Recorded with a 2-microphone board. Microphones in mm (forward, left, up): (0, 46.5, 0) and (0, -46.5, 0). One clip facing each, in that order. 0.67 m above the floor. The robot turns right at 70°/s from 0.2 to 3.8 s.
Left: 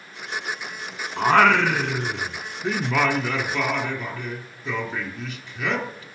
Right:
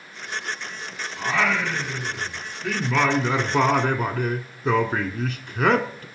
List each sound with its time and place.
1.2 s singing: 50° left, 1.2 m; by 6.0 s 125° right, 1.2 m